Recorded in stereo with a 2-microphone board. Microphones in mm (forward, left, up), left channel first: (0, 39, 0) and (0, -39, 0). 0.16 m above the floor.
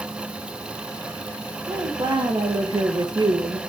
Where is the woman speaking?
65° right (ahead or behind), 4 m; by 3.6 s 55° right (ahead or behind), 3 m.